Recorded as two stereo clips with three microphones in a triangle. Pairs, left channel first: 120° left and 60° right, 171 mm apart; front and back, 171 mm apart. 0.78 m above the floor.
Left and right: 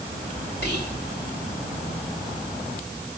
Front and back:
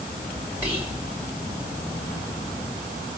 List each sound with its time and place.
0.6 s whispering: 105° left, 2.5 m